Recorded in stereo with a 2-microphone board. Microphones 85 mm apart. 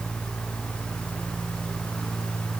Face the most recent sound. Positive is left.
No sound to turn to.